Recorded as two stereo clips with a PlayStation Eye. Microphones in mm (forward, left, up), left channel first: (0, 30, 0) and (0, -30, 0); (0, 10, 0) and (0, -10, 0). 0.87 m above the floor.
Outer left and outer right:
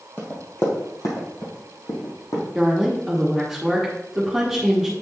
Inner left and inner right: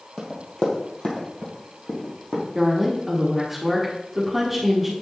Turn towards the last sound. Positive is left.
turn(degrees=-5)  # may be behind; listen again after turning